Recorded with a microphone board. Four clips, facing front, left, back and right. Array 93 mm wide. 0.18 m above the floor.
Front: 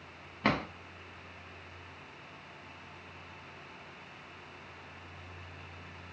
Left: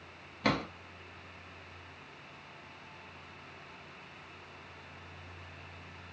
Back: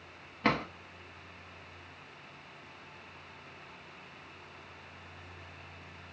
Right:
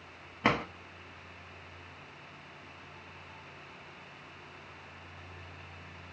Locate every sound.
0.4 s a drawer: 85° right, 0.9 m